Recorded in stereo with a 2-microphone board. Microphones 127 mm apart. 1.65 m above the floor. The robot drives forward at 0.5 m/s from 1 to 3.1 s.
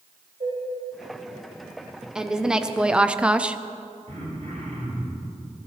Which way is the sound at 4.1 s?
65° right (ahead or behind).